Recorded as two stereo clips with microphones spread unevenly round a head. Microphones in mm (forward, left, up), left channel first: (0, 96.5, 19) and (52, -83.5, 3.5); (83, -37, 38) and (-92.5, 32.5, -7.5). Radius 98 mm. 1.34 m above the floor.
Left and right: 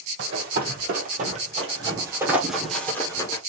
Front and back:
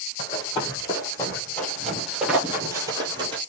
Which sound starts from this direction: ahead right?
Running footsteps, at 0.2 s.